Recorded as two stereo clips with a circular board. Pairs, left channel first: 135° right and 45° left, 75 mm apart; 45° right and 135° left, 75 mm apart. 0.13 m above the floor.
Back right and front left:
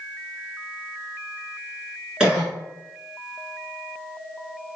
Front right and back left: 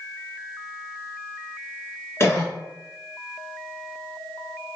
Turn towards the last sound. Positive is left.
turn(degrees=-25)